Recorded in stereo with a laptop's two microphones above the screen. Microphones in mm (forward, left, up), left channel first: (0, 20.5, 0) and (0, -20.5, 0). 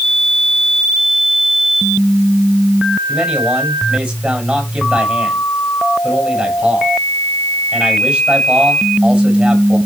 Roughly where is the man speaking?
Right.